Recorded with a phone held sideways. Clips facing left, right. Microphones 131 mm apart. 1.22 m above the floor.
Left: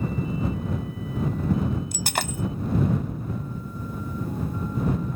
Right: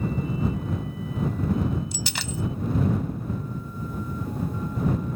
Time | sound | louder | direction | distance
1.9 | breaking glass | left 3 dB | 55° left (ahead or behind) | ?